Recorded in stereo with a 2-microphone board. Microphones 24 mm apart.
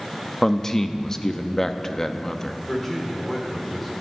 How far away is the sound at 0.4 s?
About 0.8 m.